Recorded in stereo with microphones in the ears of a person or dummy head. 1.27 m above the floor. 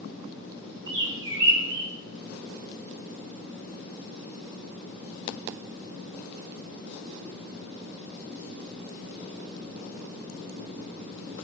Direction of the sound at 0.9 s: 65° right (ahead or behind).